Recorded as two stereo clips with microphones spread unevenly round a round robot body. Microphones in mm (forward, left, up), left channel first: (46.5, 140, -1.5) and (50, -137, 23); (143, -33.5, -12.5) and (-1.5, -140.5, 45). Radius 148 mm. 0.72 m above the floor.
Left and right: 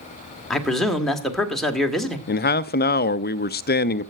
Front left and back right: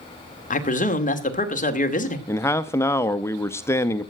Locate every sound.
0.5 s a man speaking: 5° left, 2.0 m
2.3 s a man speaking: 75° left, 0.5 m